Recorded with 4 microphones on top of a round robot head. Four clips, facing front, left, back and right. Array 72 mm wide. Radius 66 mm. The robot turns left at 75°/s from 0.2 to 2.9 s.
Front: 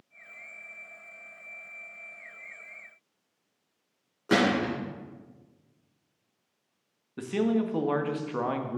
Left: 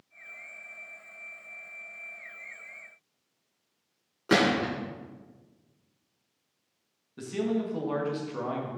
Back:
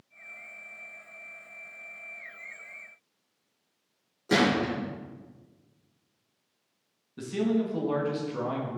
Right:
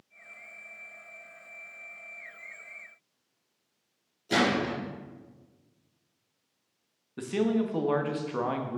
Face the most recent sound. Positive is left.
turn(degrees=-30)